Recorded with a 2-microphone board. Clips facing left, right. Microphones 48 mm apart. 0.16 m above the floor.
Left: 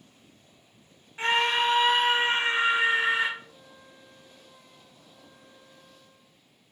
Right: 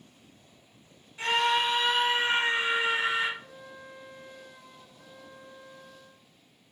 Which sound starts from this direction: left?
A scream, at 1.2 s.